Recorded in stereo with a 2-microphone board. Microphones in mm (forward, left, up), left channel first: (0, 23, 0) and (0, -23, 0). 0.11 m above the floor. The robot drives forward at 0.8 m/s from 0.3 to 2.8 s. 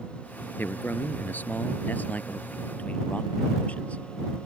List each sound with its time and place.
0.6 s a man speaking: 45° left (ahead or behind); by 4.4 s 30° left (ahead or behind)